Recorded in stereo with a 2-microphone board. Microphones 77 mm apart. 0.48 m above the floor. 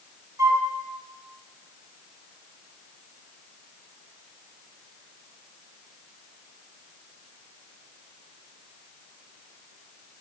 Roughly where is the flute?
Right.